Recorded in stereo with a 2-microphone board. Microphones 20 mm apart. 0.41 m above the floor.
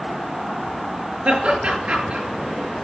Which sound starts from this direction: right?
Laughter, at 1.2 s.